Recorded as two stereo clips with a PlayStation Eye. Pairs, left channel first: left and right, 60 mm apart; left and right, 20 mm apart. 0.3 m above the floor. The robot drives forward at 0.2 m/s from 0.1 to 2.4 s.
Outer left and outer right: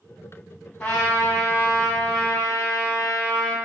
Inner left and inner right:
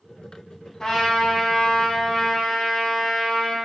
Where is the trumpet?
15° left (ahead or behind), 2.5 m.